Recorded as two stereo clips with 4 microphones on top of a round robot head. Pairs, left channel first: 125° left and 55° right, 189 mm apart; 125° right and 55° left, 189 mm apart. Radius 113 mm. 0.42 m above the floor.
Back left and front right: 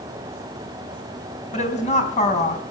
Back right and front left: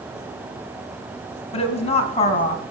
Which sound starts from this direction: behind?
A woman speaking, at 1.5 s.